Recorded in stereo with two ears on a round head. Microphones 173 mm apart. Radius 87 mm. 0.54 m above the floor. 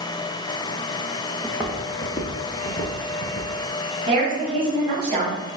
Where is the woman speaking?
30° right (ahead or behind), 2.0 m.